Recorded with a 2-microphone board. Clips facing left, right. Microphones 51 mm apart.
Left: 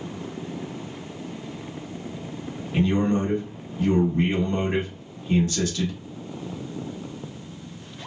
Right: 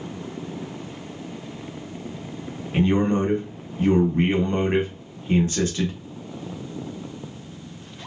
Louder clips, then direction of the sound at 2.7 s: Right 2 dB; 30° right (ahead or behind).